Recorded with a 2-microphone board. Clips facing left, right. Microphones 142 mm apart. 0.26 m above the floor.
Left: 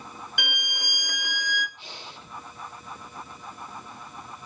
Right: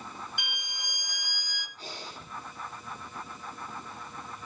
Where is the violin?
80° left, 0.8 m.